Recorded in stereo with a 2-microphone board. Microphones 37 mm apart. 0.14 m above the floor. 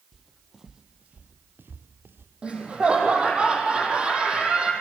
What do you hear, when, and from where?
0.1 s footsteps: centre (ahead or behind), 2 m; by 2.3 s 80° right, 2 m
2.4 s laughter: 30° right (ahead or behind), 6 m